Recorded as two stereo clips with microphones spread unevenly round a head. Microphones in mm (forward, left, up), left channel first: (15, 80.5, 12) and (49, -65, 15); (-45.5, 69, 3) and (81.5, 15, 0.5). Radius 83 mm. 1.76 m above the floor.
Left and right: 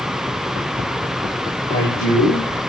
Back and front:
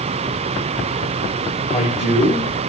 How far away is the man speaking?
About 8 m.